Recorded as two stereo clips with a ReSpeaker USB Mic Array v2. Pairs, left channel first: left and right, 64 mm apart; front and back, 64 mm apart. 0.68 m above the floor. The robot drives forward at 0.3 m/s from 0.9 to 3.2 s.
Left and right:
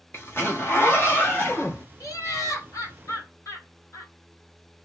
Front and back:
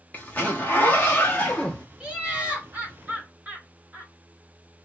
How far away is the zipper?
About 1.4 m.